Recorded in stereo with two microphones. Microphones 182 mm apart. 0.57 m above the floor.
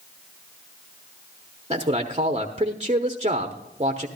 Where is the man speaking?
30° right (ahead or behind), 0.8 m.